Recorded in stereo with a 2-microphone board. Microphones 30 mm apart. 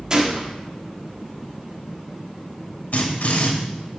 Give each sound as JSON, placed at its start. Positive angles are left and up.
{"t": 0.1, "sound": "a gunshot", "side_deg": -25, "distance_m": 1.9}
{"t": 2.9, "sound": "a drill", "side_deg": 65, "distance_m": 3.5}